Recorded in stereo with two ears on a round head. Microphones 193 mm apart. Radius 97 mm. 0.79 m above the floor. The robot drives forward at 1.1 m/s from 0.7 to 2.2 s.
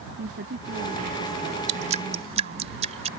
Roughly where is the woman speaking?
Right.